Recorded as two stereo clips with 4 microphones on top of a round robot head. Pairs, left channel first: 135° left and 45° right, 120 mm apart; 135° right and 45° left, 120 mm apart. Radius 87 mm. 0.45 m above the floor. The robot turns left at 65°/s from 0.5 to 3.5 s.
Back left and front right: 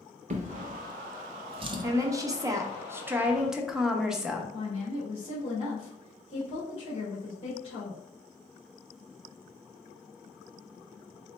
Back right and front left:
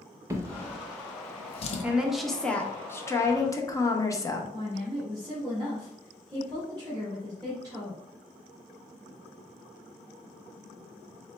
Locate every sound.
0.3 s a drawer: 20° right, 0.5 m; by 1.8 s 105° right, 0.5 m
1.8 s a woman speaking: 20° right, 0.8 m; by 4.4 s 125° right, 0.8 m
4.5 s a woman speaking: 100° left, 1.9 m